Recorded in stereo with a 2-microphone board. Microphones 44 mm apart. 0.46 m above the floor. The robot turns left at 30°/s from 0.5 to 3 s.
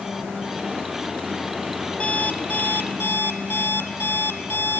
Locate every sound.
2.0 s an alarm clock: 150° left, 2 m; by 4.8 s 120° left, 2 m